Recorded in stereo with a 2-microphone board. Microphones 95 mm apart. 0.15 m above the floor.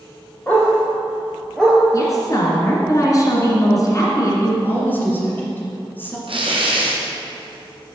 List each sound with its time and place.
0.5 s a dog barking: 15° left (ahead or behind), 2.0 m; by 1.8 s 5° left (ahead or behind), 1.1 m
1.9 s a woman speaking: 40° left (ahead or behind), 1.8 m
4.6 s a woman speaking: 20° left (ahead or behind), 1.8 m
6.3 s tearing paper: 70° right (ahead or behind), 1.4 m